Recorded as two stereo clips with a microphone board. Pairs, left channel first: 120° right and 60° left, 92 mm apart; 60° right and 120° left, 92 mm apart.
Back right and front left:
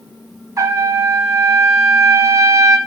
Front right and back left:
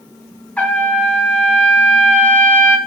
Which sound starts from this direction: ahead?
A trumpet, at 0.6 s.